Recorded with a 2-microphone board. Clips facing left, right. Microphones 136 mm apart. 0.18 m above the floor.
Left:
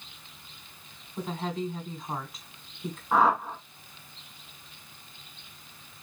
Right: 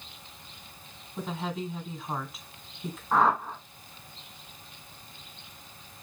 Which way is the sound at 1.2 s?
Centre (ahead or behind).